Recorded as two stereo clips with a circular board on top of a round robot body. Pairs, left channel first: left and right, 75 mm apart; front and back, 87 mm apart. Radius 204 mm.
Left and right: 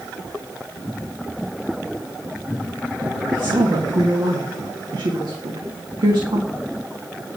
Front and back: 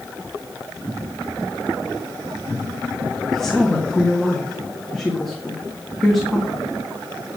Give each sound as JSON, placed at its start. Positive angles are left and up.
{"t": 3.3, "sound": "a woman speaking", "azimuth_deg": -85, "distance_m": 1.8}